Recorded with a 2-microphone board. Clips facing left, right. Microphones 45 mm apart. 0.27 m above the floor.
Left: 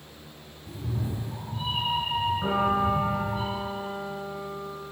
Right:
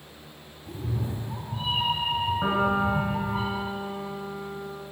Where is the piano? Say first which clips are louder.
Right 1 dB; 40° right (ahead or behind), 2.5 m.